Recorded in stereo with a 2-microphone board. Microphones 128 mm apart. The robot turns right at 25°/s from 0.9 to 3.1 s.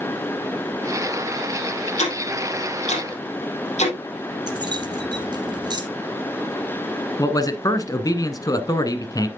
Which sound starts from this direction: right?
Keys jangling, at 4.5 s.